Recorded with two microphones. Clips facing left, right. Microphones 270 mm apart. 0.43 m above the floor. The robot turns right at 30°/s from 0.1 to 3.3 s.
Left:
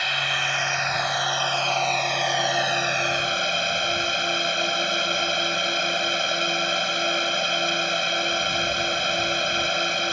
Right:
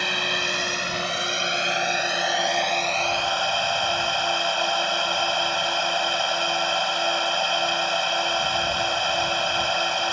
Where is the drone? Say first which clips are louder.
Right 4 dB; 70° right; by 10.1 s 25° left.